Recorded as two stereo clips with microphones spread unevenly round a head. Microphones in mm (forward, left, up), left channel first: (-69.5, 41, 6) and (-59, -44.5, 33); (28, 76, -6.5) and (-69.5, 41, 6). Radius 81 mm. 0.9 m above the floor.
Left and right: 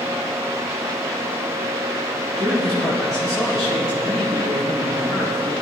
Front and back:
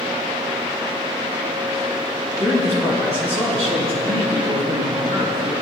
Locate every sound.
2.4 s a man speaking: 160° right, 4.5 m; by 5.5 s 175° left, 5.5 m